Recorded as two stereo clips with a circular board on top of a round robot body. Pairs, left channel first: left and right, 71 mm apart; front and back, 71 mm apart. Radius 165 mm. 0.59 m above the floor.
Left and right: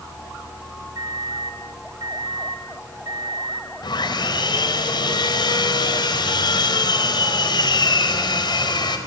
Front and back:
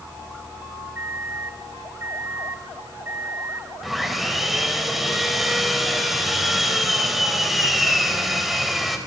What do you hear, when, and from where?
0.9 s a microwave: 120° right, 4.5 m
3.8 s sawing: 90° left, 4.5 m